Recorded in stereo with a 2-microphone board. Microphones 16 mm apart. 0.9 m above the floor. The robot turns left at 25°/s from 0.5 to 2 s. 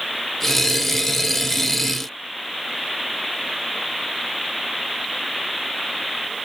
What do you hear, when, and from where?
Only background noise.